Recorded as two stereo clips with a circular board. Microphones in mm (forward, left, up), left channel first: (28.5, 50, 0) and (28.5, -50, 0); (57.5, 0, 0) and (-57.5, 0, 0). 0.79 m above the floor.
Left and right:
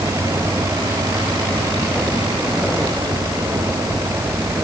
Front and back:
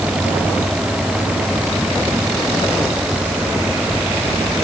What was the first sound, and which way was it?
Only background noise.